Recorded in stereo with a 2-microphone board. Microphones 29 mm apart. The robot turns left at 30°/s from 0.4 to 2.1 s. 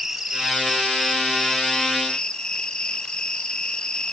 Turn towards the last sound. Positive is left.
turn(degrees=150)